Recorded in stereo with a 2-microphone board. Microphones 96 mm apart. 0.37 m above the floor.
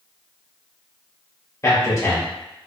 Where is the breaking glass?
I don't hear breaking glass.